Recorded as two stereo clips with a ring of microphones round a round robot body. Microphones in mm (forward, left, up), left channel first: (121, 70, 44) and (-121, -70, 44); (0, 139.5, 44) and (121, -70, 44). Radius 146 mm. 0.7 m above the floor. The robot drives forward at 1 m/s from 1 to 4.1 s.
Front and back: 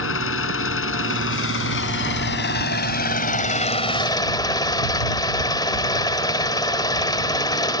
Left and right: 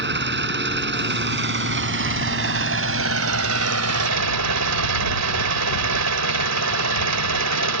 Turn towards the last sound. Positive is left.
turn(degrees=-45)